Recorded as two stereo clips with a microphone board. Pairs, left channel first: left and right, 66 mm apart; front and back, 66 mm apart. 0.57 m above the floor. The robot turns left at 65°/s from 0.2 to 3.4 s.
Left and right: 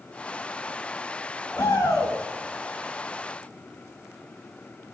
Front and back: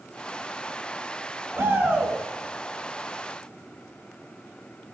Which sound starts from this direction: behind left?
A shout, at 1.6 s.